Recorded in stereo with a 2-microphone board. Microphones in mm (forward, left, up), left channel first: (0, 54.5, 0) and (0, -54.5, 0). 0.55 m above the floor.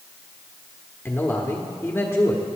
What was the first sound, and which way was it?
A man speaking, 20° left (ahead or behind).